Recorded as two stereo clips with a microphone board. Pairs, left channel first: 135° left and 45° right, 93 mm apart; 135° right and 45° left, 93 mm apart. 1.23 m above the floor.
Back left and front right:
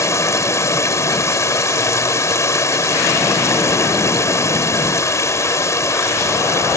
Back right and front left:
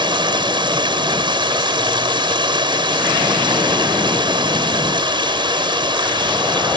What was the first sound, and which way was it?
Running water, 75° left.